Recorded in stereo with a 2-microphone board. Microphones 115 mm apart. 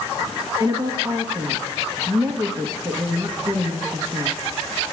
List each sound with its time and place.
0.6 s a woman speaking: 30° right (ahead or behind), 1.2 m